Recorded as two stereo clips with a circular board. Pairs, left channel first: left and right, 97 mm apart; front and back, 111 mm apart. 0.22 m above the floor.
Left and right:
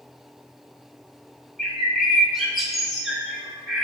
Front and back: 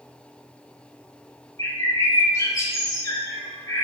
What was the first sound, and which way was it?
A bird, straight ahead.